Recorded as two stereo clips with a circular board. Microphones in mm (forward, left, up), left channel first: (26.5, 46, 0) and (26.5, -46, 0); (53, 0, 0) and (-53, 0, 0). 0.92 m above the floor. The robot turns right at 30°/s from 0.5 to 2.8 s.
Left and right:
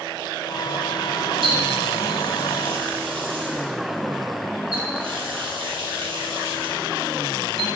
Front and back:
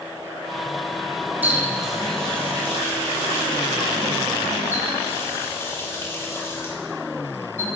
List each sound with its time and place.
1.4 s a running tap: 105° right, 1.4 m; by 7.7 s 65° right, 1.4 m